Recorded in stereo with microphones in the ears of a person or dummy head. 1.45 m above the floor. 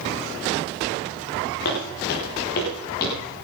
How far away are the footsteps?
About 6.5 m.